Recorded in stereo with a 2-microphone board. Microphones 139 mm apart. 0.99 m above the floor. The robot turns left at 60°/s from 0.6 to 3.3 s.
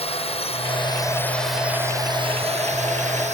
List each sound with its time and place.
0.0 s a drone: 50° left (ahead or behind); by 3.4 s 65° right (ahead or behind)